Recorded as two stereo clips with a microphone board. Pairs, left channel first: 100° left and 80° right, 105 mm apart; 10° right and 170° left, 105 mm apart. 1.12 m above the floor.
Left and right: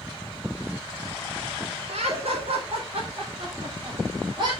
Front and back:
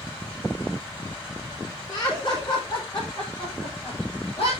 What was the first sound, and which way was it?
Laughter, 65° right.